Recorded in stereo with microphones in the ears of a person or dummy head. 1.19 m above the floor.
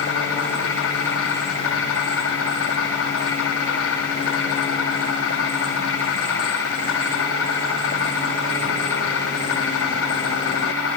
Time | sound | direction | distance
0.0 | an insect | 80° left | 7 m